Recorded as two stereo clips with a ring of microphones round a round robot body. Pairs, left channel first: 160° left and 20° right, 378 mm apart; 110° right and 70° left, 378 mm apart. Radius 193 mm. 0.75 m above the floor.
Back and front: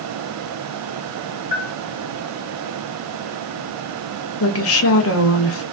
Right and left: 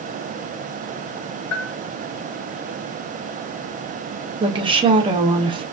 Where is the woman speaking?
135° left, 0.7 m.